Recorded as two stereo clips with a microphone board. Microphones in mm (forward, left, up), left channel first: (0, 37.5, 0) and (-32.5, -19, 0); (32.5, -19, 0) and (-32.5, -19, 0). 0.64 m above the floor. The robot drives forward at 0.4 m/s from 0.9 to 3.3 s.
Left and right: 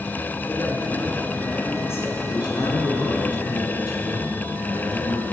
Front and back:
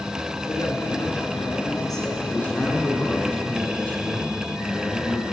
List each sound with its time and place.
0.5 s a woman speaking: 10° left, 6.5 m; by 2.1 s 15° left, 6 m
2.2 s a man speaking: 65° left, 8 m; by 5.3 s 70° left, 8 m